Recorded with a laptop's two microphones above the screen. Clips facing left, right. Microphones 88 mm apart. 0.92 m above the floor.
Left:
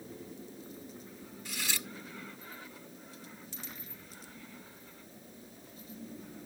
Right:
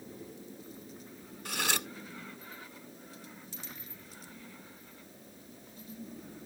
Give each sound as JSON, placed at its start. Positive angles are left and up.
{"t": 1.4, "sound": "cutlery clinking", "side_deg": -65}